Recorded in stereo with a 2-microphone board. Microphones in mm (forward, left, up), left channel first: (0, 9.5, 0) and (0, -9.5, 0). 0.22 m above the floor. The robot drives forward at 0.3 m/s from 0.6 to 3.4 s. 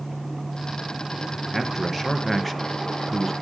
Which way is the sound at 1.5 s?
10° left (ahead or behind).